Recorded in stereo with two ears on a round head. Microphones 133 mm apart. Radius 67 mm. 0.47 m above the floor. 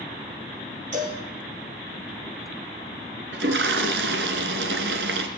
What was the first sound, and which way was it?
A cowbell, 50° right (ahead or behind).